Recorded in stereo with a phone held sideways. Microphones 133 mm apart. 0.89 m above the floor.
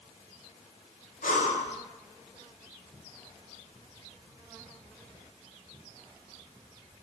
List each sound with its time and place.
1.2 s breathing: 75° left (ahead or behind), 0.7 m